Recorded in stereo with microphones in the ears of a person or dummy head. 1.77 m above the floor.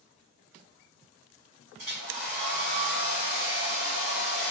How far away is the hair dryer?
About 1.7 m.